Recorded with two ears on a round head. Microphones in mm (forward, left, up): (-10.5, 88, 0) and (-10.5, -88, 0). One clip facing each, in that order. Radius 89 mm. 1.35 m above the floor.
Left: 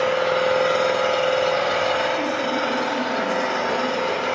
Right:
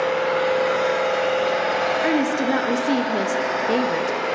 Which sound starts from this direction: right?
A woman speaking, at 2.0 s.